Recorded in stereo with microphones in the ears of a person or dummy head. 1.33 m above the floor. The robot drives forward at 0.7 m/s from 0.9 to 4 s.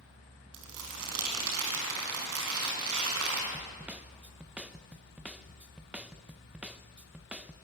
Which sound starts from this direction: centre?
A snare drum, at 3.5 s.